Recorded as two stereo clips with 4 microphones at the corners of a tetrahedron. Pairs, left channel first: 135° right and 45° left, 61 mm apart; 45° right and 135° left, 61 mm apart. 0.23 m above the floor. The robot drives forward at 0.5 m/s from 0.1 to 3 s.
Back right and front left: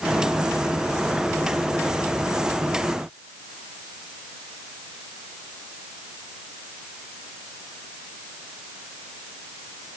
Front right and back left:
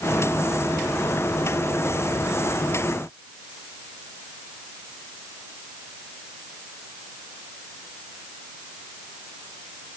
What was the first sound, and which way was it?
Only background noise.